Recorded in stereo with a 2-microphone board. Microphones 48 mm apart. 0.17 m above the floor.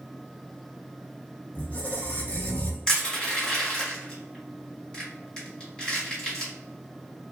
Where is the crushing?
20° left (ahead or behind), 1.6 m.